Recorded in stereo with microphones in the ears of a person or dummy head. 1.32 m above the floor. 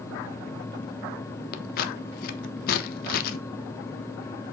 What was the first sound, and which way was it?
Scissors, 50° left (ahead or behind).